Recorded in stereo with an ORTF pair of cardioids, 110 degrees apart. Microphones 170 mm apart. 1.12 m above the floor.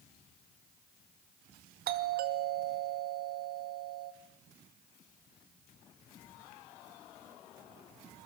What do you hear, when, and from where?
1.9 s a doorbell: 70° right, 2 m